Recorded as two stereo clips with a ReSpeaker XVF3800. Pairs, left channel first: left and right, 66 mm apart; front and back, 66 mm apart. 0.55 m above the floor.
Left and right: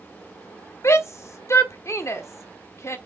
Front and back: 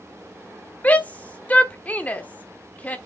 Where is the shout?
60° left, 1.3 m.